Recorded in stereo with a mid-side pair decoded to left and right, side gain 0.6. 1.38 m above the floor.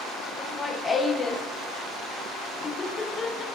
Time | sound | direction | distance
0.4 | laughter | 25° left | 0.6 m